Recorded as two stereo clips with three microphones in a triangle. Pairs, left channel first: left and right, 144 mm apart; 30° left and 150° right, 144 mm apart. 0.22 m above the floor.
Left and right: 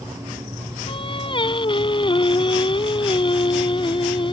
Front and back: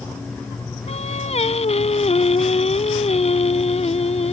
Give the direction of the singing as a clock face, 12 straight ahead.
10 o'clock.